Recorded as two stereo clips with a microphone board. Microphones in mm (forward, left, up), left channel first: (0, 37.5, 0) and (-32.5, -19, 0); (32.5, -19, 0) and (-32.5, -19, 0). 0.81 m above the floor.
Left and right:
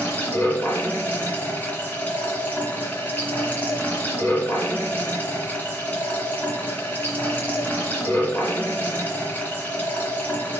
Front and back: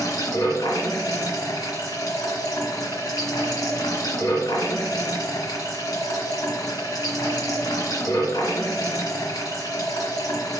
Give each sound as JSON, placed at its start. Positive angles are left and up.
{"t": 0.0, "sound": "running water", "azimuth_deg": 0, "distance_m": 2.0}